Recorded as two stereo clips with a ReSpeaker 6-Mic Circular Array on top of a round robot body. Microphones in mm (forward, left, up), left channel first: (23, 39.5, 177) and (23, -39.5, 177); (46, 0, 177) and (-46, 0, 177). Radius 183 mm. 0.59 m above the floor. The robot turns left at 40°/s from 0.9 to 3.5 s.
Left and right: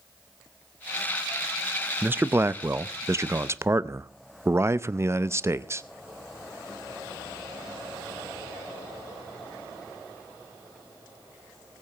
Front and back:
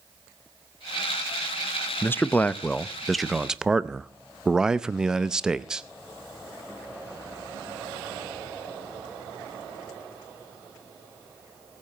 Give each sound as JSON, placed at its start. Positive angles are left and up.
{"t": 2.0, "sound": "a man speaking", "azimuth_deg": -45, "distance_m": 0.8}